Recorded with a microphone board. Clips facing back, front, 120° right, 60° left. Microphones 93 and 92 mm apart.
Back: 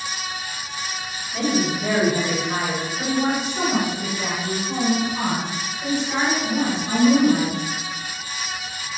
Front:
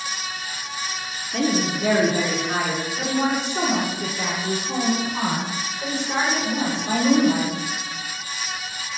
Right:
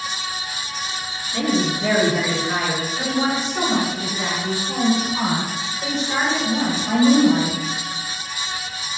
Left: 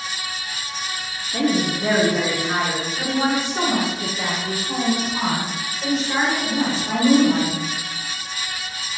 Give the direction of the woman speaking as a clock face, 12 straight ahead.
12 o'clock.